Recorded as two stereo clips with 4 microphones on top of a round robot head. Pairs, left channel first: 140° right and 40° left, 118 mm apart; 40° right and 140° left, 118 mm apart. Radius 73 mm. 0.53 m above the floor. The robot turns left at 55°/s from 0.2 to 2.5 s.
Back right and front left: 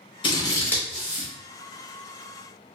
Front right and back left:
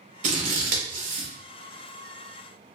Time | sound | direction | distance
0.2 | scissors | 170° left | 0.8 m